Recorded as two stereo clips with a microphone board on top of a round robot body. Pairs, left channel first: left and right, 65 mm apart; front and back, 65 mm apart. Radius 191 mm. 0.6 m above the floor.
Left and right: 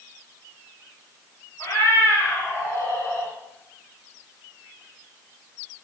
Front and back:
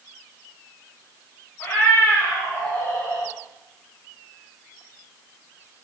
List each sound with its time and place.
1.6 s a cat meowing: 55° left, 3 m; by 3.3 s 40° left, 3 m